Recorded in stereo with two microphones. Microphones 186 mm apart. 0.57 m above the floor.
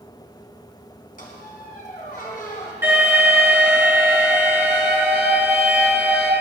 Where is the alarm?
10° right (ahead or behind), 6 m.